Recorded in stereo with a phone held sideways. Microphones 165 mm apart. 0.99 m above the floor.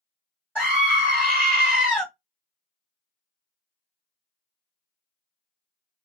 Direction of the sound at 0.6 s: 10° left (ahead or behind).